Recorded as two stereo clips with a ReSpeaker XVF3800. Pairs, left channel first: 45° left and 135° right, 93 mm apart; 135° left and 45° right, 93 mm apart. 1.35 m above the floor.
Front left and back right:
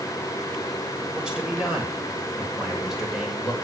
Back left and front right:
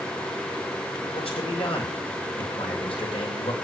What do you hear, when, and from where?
1.1 s a man speaking: 145° left, 8 m; by 3.6 s 135° left, 7 m